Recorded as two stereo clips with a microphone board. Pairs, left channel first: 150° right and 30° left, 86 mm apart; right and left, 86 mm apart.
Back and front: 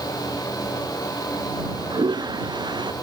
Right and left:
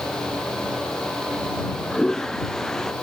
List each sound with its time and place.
1.6 s a toilet flushing: 5° right